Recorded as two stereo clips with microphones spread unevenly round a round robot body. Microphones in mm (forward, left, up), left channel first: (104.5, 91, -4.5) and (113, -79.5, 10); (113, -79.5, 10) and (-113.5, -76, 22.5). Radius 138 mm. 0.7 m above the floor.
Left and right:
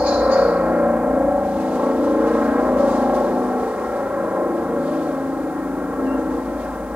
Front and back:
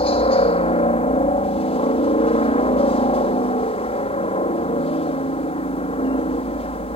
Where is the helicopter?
10° right.